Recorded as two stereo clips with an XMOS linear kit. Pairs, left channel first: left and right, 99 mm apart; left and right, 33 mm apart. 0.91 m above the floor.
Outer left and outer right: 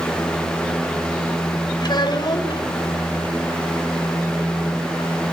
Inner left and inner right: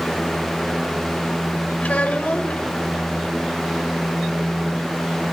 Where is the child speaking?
45° left (ahead or behind), 2.5 m.